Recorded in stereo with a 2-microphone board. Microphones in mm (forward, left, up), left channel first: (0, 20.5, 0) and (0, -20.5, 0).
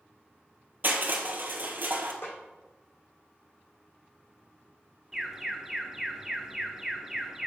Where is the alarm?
10° right (ahead or behind), 1.0 m.